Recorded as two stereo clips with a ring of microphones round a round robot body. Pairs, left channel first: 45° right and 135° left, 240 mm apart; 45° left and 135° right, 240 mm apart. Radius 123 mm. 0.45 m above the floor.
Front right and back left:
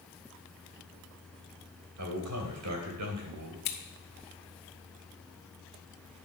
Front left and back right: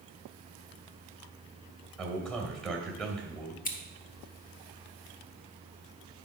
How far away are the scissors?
About 1.2 m.